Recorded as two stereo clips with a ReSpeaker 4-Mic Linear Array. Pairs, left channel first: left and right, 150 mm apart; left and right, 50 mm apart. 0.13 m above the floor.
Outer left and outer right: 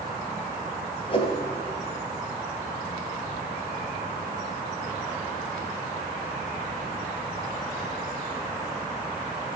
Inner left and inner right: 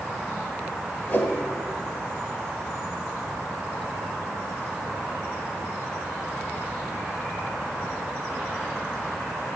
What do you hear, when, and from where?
1.1 s a whoosh: 40° left (ahead or behind), 2 m